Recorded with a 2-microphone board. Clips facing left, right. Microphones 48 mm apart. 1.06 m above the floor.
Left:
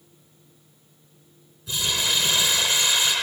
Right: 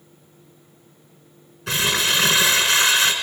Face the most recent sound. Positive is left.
turn(degrees=-75)  # may be behind; listen again after turning